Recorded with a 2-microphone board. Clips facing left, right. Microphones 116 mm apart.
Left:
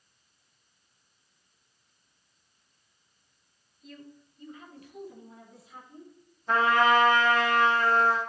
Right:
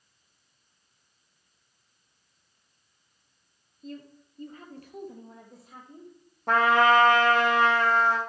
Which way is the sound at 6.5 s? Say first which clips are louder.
Right 2 dB; 65° right (ahead or behind).